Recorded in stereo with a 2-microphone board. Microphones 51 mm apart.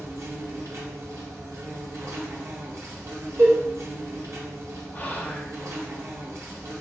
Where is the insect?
70° right (ahead or behind), 0.9 m.